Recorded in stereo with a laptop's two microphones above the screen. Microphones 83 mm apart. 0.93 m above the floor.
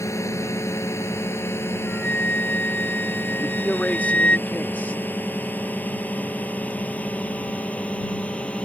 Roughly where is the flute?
Centre.